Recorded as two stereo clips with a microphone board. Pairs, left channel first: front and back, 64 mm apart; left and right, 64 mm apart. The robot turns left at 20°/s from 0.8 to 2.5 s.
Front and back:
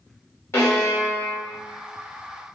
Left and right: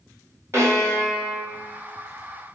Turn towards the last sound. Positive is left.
turn(degrees=-85)